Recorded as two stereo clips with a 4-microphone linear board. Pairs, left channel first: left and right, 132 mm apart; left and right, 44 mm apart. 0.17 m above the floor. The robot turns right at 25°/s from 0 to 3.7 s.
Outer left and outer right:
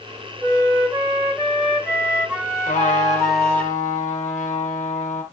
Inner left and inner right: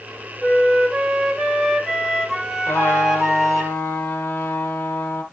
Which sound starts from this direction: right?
A flute, at 0.4 s.